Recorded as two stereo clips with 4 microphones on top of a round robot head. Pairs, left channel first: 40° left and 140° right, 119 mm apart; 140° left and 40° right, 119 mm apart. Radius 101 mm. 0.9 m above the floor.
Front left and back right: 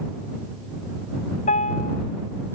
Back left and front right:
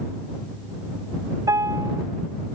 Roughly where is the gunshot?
I don't hear a gunshot.